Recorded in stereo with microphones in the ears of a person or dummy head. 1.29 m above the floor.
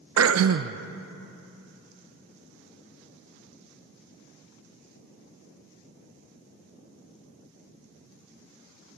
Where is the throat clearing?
75° right (ahead or behind), 0.9 m.